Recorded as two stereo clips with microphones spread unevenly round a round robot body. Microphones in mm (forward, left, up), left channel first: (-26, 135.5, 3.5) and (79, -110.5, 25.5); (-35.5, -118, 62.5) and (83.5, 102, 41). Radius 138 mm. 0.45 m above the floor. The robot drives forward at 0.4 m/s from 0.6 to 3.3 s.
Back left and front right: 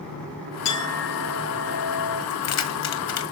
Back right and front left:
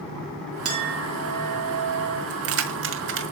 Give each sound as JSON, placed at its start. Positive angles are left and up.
{"t": 0.7, "sound": "a clink", "azimuth_deg": 95, "distance_m": 4.0}
{"t": 2.3, "sound": "keys jangling", "azimuth_deg": 90, "distance_m": 1.8}